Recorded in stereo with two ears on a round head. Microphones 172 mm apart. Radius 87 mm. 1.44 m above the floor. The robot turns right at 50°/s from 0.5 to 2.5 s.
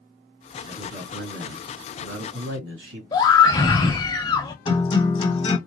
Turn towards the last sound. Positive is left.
turn(degrees=25)  # may be behind; listen again after turning